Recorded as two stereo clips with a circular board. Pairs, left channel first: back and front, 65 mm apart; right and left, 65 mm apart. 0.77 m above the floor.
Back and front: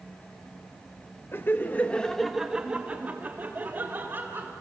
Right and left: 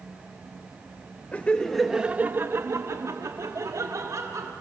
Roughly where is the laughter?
Behind right.